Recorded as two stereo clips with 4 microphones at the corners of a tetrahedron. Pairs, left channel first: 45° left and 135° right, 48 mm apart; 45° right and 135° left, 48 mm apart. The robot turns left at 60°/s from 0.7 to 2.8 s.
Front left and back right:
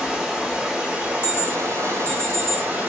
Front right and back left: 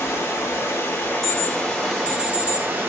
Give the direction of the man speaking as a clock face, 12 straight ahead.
No man speaking in this recording.